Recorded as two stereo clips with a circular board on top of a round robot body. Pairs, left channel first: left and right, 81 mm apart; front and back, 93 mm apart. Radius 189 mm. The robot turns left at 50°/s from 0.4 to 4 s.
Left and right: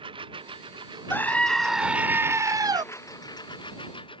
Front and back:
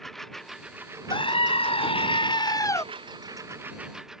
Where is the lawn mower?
85° right; by 4.2 s 95° left.